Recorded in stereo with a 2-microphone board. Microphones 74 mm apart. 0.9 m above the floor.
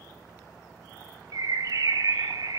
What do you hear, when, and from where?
1.3 s a bird: 55° right (ahead or behind), 0.5 m